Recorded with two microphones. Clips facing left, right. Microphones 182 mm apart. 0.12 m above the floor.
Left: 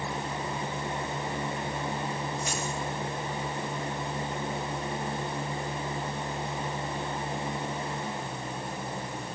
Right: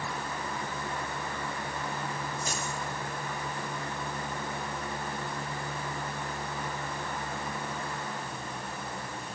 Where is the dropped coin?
35° right (ahead or behind), 7 m.